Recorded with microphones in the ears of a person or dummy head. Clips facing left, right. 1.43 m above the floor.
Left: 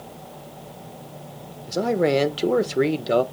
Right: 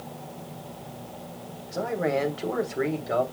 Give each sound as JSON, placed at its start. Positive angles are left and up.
{"t": 1.7, "sound": "a man speaking", "side_deg": 50, "distance_m": 1.1}